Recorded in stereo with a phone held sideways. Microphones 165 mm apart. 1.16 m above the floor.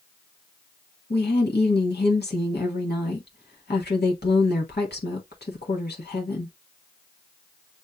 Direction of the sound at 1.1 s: 80° left.